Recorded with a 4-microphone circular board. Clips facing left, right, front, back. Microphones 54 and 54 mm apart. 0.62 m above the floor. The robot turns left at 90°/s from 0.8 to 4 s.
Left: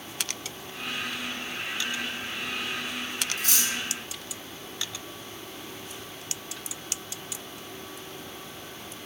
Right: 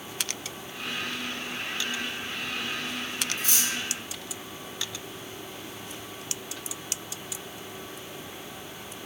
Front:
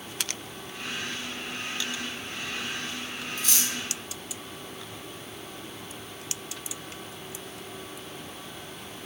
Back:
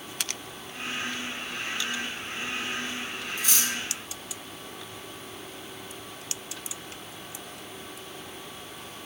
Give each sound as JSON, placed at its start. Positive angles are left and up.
{"t": 3.4, "sound": "cutlery clinking", "azimuth_deg": 105, "distance_m": 2.5}